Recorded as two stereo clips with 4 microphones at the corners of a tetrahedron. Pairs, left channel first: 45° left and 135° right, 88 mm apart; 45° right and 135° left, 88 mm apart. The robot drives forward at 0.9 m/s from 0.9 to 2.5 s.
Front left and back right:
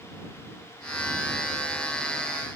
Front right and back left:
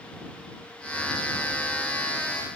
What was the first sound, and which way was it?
Only background noise.